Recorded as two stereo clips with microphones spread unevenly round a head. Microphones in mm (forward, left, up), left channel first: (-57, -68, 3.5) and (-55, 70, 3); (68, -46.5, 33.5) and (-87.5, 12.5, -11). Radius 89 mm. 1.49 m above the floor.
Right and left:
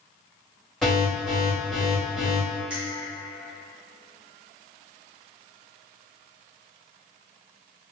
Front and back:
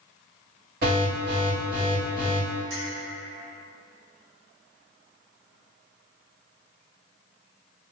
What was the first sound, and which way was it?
An alarm, straight behind.